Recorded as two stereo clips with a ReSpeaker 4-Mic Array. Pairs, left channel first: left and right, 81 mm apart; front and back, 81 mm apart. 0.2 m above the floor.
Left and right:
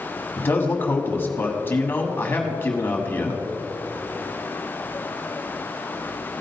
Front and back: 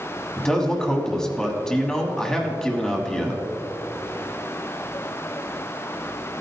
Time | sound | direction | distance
0.4 | a man speaking | 75° left | 1.3 m